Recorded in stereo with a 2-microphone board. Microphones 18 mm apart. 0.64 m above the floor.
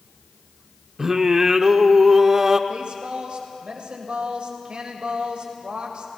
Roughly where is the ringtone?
I don't hear a ringtone.